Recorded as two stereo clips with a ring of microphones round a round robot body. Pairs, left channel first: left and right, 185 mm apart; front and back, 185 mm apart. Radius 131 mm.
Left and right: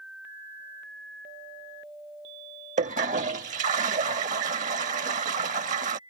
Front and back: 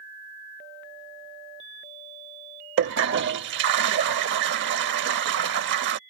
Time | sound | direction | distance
2.8 | a toilet flushing | 145° right | ?